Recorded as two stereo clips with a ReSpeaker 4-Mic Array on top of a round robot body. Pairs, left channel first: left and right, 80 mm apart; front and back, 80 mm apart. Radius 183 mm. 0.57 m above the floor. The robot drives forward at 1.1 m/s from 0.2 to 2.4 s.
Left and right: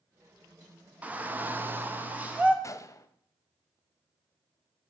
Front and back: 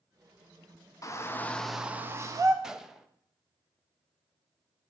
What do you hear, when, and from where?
1.0 s a shout: 25° right, 1.3 m; by 2.5 s 155° right, 1.3 m
2.6 s a gunshot: 100° left, 0.8 m